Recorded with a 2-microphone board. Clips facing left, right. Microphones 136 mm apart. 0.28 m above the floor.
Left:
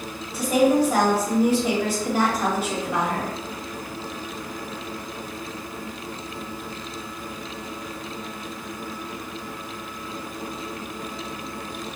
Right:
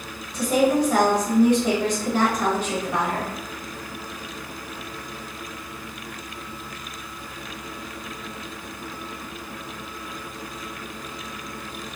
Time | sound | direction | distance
0.3 | a woman speaking | 10° left (ahead or behind) | 1.0 m